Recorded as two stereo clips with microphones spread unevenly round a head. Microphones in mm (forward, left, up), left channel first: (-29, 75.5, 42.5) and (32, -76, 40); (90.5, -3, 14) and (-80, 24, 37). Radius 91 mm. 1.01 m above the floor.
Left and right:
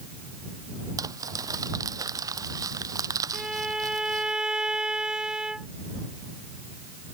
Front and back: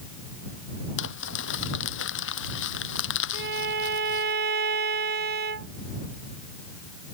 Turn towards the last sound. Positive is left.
turn(degrees=-155)